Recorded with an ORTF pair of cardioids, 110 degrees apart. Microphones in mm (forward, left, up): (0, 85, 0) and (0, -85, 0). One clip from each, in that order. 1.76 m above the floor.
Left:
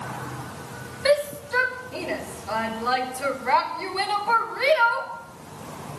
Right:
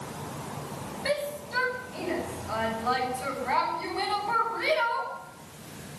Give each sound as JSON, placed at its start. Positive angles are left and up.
{"t": 1.1, "sound": "a shout", "azimuth_deg": 65, "distance_m": 6.5}